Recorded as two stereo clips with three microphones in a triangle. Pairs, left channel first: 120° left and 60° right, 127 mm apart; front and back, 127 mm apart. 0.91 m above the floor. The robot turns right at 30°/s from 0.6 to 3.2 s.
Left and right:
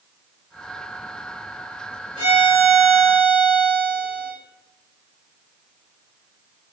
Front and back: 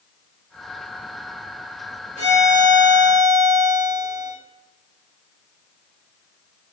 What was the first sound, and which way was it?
A violin, 15° right.